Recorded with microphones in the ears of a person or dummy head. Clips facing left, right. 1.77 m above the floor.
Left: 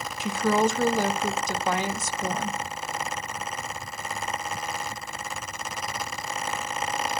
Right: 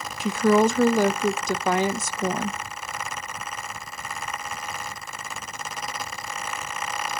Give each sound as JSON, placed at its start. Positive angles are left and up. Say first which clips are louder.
{"t": 0.2, "sound": "a woman speaking", "louder": "right 5 dB", "side_deg": -50, "distance_m": 0.5}